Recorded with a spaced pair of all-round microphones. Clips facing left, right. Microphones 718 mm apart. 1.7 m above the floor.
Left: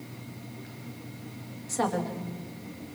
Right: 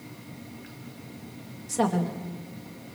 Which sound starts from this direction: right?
A woman speaking, at 1.7 s.